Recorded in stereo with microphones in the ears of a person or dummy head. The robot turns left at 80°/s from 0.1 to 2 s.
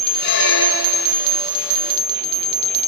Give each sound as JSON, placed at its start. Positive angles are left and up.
{"t": 0.2, "sound": "a squeak", "azimuth_deg": 125, "distance_m": 4.0}